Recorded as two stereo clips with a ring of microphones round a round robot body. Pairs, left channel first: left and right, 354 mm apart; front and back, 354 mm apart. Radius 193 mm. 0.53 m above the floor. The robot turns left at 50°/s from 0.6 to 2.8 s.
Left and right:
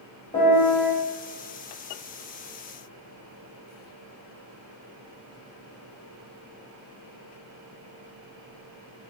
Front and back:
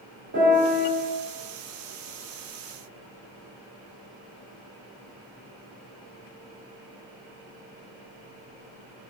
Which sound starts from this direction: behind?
A piano, at 0.3 s.